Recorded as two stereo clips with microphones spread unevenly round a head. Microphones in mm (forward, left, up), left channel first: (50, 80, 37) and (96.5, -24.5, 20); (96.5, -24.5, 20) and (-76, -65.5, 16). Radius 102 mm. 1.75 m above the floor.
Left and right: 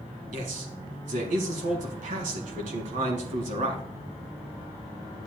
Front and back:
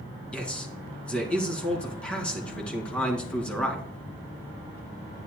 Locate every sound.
0.3 s a man speaking: 70° right, 2.5 m